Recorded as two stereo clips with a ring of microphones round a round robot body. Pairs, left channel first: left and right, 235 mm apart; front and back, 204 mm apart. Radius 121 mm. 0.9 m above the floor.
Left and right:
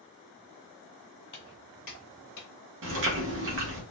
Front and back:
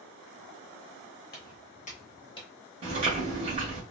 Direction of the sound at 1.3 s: 25° left.